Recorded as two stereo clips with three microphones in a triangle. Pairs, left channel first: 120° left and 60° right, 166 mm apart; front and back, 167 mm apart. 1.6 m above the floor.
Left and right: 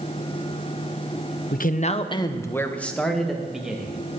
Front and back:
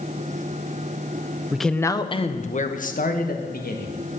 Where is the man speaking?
95° left, 1.0 m; by 3.9 s 25° left, 3 m.